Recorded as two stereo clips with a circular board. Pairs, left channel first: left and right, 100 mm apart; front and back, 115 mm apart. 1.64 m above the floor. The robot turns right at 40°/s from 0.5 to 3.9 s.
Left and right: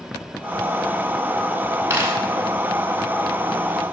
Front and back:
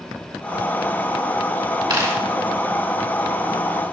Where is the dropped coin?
150° right, 2.5 m; by 2.2 s 140° right, 2.5 m.